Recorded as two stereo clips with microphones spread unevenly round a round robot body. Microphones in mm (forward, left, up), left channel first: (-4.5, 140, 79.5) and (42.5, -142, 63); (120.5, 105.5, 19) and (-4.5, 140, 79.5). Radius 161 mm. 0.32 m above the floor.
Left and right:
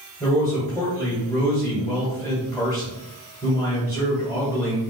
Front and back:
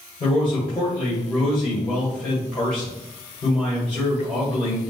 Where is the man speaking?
25° left, 1.9 m.